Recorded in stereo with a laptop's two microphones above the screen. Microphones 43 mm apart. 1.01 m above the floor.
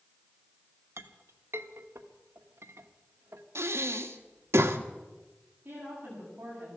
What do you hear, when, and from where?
1.0 s a clink: 75° right (ahead or behind), 1.2 m
3.5 s breathing: 75° right (ahead or behind), 1.3 m
5.7 s a woman speaking: 45° right (ahead or behind), 9 m